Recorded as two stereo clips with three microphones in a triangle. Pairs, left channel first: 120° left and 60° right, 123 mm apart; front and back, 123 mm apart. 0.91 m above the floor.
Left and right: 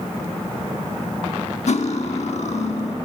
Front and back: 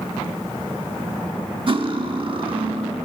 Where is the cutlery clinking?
140° left, 1.0 m.